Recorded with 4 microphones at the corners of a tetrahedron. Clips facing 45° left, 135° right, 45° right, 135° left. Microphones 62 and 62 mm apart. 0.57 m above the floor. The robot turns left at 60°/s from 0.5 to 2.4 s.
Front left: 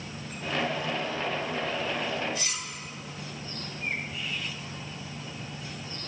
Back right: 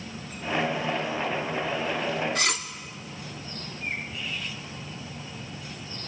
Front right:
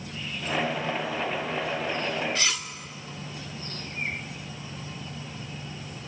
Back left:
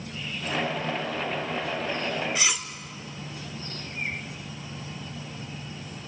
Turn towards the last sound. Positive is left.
turn(degrees=-150)